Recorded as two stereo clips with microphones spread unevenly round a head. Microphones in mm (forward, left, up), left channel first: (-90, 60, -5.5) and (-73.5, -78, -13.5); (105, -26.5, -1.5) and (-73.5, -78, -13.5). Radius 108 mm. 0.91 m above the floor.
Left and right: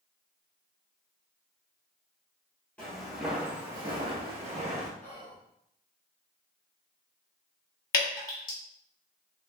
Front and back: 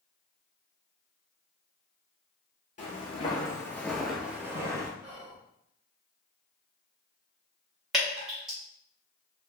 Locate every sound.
2.8 s footsteps: 25° left, 1.1 m; by 4.9 s 95° right, 1.3 m
5.0 s whispering: 130° left, 1.2 m
7.9 s dripping: 105° left, 1.2 m